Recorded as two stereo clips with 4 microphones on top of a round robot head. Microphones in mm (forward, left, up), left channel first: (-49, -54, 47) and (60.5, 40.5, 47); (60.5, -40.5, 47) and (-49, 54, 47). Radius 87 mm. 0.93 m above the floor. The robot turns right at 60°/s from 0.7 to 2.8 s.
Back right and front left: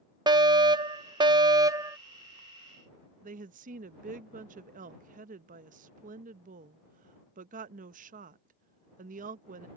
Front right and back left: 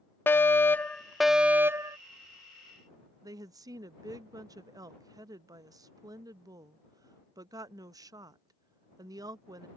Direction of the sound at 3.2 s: 75° left.